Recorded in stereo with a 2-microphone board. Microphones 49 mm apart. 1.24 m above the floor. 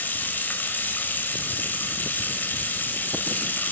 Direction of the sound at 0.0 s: 45° left (ahead or behind).